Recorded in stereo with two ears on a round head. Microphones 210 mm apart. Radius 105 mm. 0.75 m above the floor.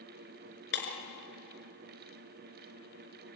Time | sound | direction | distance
0.7 | breaking glass | 50° left (ahead or behind) | 4 m